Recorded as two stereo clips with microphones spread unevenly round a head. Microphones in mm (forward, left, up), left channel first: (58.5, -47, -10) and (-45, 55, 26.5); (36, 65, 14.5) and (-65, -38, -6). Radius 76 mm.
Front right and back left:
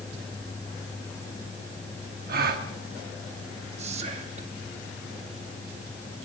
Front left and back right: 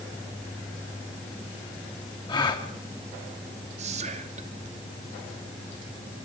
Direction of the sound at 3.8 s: 175° right.